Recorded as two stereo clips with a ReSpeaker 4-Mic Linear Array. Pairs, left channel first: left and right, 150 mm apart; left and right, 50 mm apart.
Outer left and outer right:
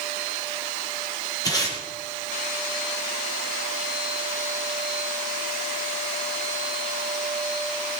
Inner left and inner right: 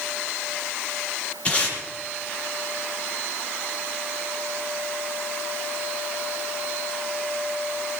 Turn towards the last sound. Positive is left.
turn(degrees=25)  # may be behind; listen again after turning